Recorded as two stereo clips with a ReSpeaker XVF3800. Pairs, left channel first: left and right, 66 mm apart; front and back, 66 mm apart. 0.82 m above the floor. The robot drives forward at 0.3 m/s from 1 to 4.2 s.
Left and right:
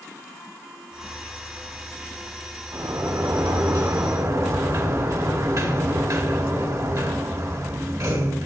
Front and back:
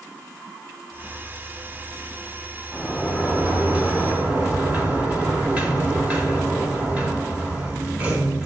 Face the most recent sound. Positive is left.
turn(degrees=-115)